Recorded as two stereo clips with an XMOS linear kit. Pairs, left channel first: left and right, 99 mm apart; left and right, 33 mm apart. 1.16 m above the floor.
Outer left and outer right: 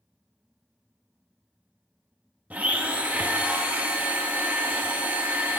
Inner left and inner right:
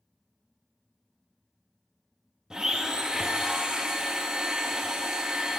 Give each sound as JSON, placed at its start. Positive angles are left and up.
{"t": 2.5, "sound": "a blender", "side_deg": -15, "distance_m": 0.8}